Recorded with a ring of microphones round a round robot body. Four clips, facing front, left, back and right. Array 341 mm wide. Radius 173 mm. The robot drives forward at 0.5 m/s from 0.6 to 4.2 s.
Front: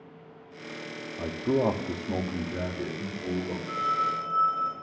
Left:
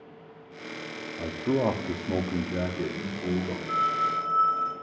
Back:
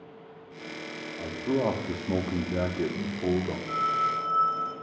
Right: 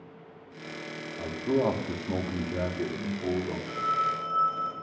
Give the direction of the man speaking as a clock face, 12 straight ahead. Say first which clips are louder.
Even, front 2 dB; 11 o'clock.